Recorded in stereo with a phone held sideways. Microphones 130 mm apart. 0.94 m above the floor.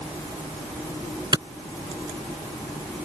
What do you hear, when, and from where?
1.3 s a clap: 30° right (ahead or behind)